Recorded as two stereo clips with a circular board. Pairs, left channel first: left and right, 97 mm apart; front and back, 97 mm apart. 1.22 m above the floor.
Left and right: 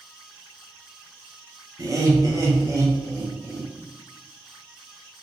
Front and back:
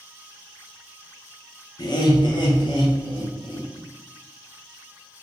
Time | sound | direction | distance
1.8 | laughter | 35° right | 0.7 m